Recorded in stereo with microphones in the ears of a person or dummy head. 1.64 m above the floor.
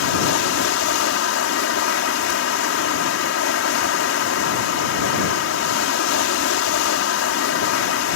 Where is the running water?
80° left.